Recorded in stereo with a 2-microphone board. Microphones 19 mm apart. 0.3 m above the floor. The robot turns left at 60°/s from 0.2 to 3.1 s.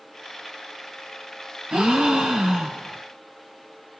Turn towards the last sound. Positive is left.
turn(degrees=-170)